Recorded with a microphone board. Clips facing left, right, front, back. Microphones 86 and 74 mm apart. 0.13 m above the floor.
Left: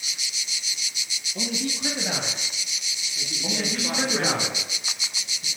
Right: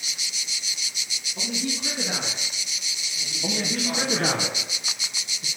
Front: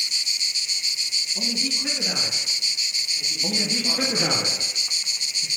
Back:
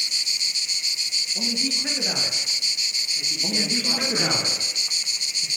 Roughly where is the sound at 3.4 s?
Behind right.